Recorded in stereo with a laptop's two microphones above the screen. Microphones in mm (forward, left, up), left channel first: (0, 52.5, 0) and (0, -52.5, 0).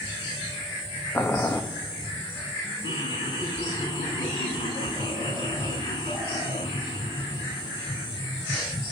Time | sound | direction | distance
1.1 | boiling | 25° left (ahead or behind) | 0.6 m
2.8 | laughter | 65° left (ahead or behind) | 4 m